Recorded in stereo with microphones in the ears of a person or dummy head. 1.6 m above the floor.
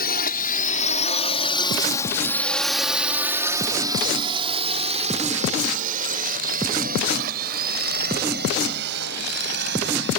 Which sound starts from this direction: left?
A drone, at 0.0 s.